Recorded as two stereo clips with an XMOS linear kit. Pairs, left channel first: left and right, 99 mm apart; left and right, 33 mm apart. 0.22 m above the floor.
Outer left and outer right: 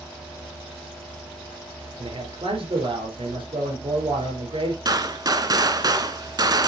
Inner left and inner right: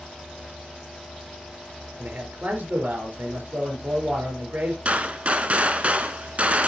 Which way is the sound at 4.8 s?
40° right (ahead or behind).